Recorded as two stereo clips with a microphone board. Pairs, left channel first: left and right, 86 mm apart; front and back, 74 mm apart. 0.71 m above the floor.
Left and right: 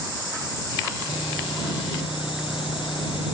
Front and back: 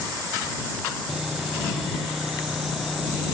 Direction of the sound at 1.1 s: 95° left.